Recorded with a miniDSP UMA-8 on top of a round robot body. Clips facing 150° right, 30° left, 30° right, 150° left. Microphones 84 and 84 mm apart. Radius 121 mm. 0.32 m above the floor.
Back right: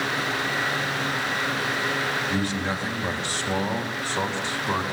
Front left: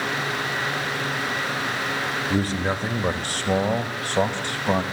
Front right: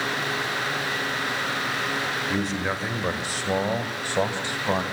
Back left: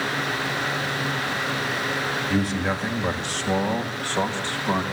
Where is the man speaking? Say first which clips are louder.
Front left 2 dB, back left 5 dB; 65° left, 1.7 m; by 4.8 s 40° left, 2.5 m.